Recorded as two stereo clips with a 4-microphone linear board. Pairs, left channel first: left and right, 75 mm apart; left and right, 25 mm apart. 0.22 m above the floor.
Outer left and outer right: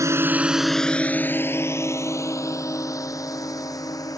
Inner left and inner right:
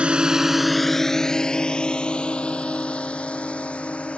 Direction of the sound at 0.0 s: 45° right (ahead or behind).